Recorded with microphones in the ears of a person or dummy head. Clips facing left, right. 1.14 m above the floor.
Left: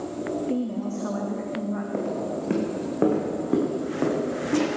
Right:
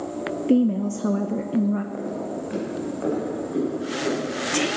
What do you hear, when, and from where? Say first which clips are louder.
0.5 s a woman speaking: right 7 dB; 55° right (ahead or behind), 0.6 m
1.9 s footsteps: left 1 dB; 55° left (ahead or behind), 3.5 m; by 4.7 s 65° left (ahead or behind), 6.5 m